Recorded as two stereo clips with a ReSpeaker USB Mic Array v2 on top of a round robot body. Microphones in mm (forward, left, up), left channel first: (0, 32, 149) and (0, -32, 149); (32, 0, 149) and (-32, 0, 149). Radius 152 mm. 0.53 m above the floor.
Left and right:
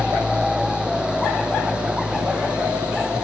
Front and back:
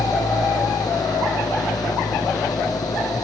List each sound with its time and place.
0.0 s an engine running: 15° right